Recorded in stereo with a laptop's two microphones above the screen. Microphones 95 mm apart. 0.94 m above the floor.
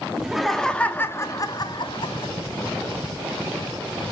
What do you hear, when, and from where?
0.2 s laughter: 5° right (ahead or behind), 1.6 m; by 2.3 s 65° left (ahead or behind), 1.7 m